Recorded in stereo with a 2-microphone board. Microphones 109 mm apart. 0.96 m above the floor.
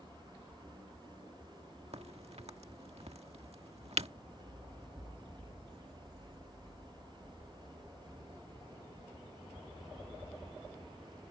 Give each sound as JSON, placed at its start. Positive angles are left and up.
{"t": 1.9, "sound": "a crack", "side_deg": -70}